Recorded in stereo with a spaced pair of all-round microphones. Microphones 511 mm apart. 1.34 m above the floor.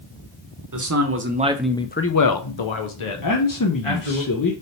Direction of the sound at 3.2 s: 40° left (ahead or behind).